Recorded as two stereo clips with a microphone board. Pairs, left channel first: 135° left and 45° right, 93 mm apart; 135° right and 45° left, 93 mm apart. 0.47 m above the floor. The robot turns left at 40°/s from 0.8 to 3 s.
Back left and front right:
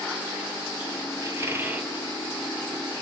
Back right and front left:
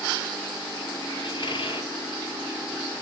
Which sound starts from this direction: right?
A squeak, at 1.2 s.